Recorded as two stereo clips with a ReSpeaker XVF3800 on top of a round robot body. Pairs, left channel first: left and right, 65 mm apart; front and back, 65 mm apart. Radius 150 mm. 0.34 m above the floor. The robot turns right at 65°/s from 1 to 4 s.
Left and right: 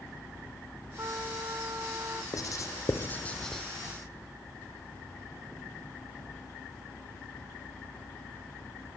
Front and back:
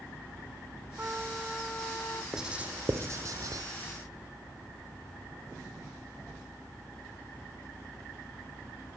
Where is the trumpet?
125° right, 1.7 m; by 2.2 s 45° right, 1.7 m.